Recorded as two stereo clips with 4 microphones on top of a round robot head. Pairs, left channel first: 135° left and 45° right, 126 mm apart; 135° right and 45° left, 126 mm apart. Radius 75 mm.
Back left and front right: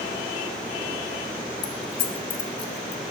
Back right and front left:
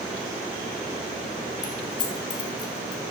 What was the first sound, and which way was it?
Keys jangling, 165° left.